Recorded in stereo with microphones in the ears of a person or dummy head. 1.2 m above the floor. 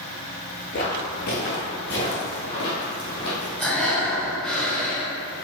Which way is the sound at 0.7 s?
45° left (ahead or behind).